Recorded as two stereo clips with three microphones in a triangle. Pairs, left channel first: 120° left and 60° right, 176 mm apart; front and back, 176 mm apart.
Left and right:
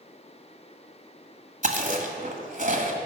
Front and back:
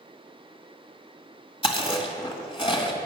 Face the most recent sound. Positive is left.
turn(degrees=-50)